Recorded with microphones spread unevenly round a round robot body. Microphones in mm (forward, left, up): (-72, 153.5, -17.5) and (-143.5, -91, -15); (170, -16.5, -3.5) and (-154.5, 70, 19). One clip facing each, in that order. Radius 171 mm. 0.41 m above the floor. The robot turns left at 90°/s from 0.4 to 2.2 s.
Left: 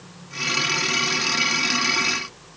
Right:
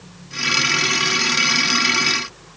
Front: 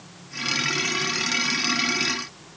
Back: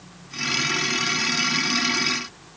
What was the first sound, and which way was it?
Only background noise.